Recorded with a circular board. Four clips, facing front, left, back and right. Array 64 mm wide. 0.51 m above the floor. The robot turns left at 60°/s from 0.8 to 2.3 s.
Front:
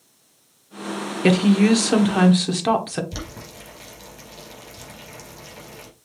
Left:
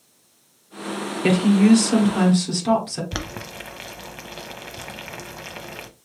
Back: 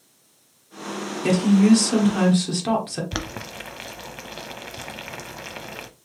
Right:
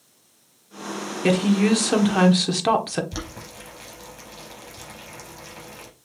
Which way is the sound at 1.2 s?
5° left.